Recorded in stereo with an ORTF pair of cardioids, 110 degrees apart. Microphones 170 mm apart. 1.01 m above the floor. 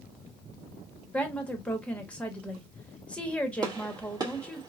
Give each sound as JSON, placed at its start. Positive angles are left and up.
{"t": 1.1, "sound": "a woman speaking", "azimuth_deg": 5, "distance_m": 1.1}
{"t": 3.6, "sound": "a gunshot", "azimuth_deg": -25, "distance_m": 1.1}